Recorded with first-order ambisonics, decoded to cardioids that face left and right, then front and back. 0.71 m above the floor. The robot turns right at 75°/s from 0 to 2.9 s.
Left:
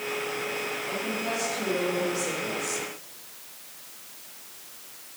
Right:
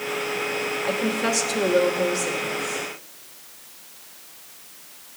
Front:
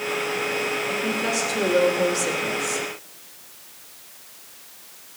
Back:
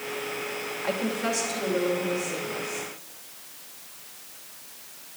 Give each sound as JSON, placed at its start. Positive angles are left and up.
{"t": 0.8, "sound": "a woman speaking", "azimuth_deg": -115, "distance_m": 2.5}